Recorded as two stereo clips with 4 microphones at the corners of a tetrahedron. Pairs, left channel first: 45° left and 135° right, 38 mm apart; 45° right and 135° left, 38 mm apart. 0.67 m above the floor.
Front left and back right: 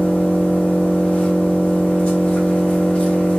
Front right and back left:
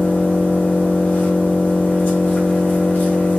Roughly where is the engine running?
Ahead.